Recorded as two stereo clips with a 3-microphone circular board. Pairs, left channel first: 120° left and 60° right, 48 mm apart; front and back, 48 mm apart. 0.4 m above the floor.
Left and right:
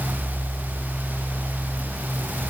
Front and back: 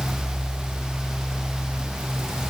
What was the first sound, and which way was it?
Only background noise.